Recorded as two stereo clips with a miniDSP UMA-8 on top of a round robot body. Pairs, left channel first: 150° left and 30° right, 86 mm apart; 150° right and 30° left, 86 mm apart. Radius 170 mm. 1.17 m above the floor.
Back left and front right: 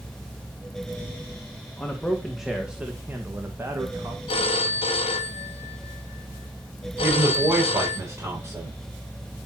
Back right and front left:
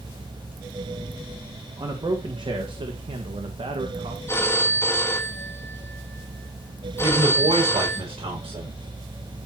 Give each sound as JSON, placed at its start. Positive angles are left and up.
{"t": 1.8, "sound": "a man speaking", "azimuth_deg": 70, "distance_m": 1.7}
{"t": 4.3, "sound": "a phone ringing", "azimuth_deg": 150, "distance_m": 0.9}
{"t": 7.0, "sound": "a woman speaking", "azimuth_deg": 30, "distance_m": 6.5}